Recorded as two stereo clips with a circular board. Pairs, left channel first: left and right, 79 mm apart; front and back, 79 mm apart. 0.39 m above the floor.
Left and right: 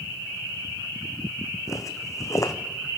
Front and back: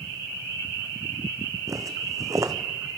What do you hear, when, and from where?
1.7 s footsteps: 135° left, 1.4 m